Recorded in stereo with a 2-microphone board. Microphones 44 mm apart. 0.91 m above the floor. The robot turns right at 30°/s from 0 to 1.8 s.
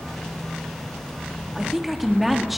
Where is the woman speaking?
10° right (ahead or behind), 2 m; by 2.6 s centre (ahead or behind), 2 m.